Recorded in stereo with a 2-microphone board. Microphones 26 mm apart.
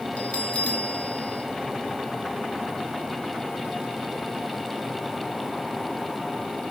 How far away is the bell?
About 2.5 m.